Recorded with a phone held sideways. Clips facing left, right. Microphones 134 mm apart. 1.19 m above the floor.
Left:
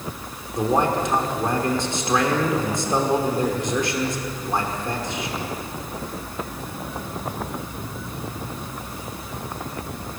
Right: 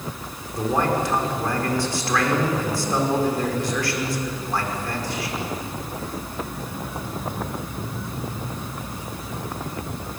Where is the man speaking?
25° left (ahead or behind), 4.5 m.